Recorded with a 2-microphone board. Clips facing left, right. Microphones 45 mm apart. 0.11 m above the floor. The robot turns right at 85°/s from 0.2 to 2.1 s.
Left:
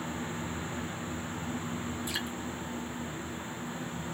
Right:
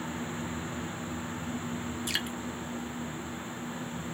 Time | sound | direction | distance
2.1 | dripping | 75° right (ahead or behind) | 0.5 m